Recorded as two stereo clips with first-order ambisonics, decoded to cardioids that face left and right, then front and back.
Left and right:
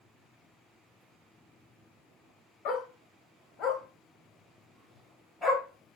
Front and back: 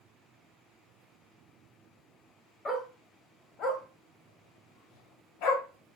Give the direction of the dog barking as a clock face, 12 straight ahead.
10 o'clock.